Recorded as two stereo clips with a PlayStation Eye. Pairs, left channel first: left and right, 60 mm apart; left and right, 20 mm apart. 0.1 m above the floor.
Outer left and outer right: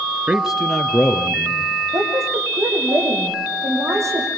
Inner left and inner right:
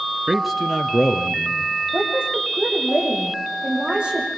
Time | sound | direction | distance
0.3 | a man speaking | 15° right (ahead or behind) | 1.7 m
1.9 | a woman speaking | 55° right (ahead or behind) | 6.5 m